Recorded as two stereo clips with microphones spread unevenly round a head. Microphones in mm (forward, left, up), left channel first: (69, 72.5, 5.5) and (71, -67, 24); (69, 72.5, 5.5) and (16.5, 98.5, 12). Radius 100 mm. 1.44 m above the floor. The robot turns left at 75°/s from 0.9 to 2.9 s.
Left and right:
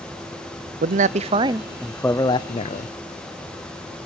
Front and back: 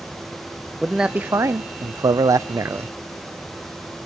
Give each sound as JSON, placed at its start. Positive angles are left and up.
{"t": 0.8, "sound": "a man speaking", "azimuth_deg": -115, "distance_m": 0.5}